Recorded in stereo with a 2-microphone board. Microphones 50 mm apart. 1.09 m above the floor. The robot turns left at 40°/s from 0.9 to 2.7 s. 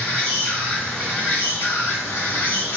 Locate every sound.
0.0 s an insect: 150° left, 1.5 m; by 2.8 s 80° left, 1.5 m